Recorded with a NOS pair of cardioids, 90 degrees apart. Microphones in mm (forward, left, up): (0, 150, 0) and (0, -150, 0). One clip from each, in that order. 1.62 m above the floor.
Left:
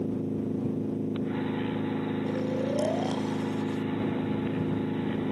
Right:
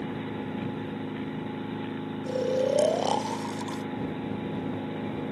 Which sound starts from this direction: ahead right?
Snoring, at 2.3 s.